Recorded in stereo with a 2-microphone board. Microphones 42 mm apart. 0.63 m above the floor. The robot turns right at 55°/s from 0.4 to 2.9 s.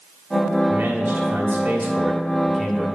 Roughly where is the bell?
I don't hear a bell.